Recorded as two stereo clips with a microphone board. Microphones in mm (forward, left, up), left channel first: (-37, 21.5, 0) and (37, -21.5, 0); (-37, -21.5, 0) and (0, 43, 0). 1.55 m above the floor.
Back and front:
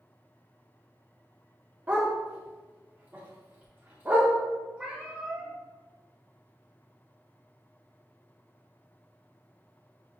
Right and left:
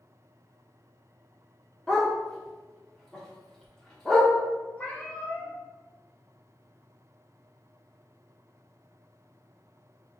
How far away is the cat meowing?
About 0.9 m.